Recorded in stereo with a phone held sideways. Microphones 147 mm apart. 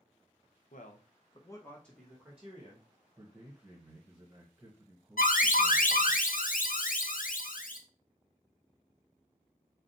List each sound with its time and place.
0.7 s a man speaking: 70° left (ahead or behind), 0.8 m; by 2.9 s 15° right (ahead or behind), 1.7 m
3.2 s a man speaking: 20° right (ahead or behind), 1.2 m
5.2 s an alarm: 75° left (ahead or behind), 0.6 m